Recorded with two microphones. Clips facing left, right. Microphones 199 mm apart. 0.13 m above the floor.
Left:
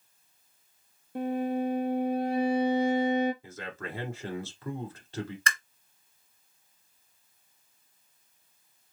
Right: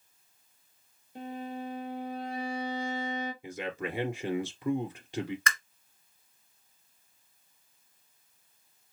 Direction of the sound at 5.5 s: 35° left (ahead or behind).